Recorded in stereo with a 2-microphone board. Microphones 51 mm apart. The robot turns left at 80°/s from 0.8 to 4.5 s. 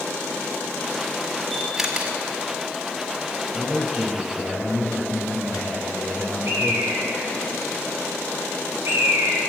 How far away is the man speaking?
About 5.5 m.